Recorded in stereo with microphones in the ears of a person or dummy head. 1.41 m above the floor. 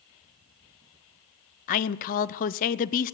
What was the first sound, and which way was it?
A man speaking, 45° left (ahead or behind).